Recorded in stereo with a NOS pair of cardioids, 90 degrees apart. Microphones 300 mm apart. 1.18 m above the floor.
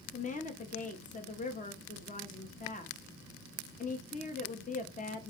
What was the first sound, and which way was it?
A woman speaking, 25° left.